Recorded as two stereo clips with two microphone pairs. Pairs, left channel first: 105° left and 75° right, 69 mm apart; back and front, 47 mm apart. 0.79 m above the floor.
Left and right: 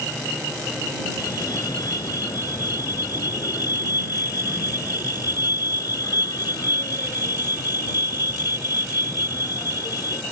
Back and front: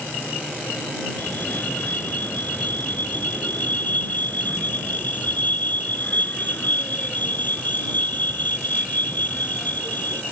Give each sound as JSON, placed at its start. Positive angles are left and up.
{"t": 1.2, "sound": "a fire alarm", "azimuth_deg": 130}